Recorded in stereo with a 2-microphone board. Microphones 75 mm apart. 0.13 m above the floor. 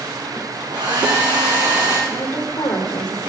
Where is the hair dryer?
75° right (ahead or behind), 7.5 m.